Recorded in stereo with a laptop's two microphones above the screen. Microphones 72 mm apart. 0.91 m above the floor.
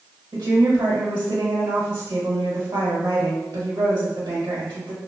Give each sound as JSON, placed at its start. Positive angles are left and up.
{"t": 0.3, "sound": "a woman speaking", "side_deg": -75, "distance_m": 1.1}